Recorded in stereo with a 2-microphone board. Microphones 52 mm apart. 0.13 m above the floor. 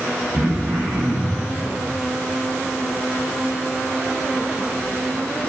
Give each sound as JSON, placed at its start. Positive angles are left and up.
{"t": 0.3, "sound": "throat clearing", "side_deg": -40, "distance_m": 7.0}